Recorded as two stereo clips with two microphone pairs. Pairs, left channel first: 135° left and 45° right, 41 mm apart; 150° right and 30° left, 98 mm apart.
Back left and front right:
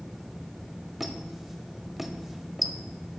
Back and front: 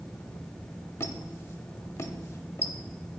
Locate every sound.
1.0 s a squeak: 125° right, 0.5 m